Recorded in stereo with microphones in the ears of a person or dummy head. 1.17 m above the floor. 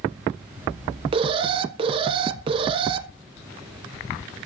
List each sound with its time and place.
1.1 s an alarm: 30° right (ahead or behind), 0.6 m